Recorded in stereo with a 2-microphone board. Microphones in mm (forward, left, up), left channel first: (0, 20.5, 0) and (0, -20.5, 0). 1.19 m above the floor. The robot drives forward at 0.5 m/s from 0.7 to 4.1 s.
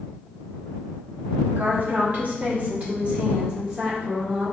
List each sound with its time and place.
1.6 s a woman speaking: 55° right (ahead or behind), 0.9 m; by 4.5 s 25° right (ahead or behind), 1.9 m